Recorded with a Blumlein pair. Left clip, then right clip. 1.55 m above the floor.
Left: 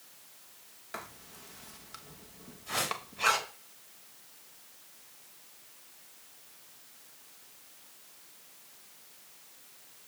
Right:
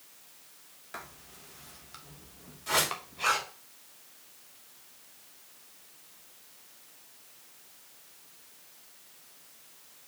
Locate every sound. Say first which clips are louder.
0.9 s writing: left 1 dB; 5° left, 1.1 m
2.7 s a whoosh: right 5 dB; 35° right, 3 m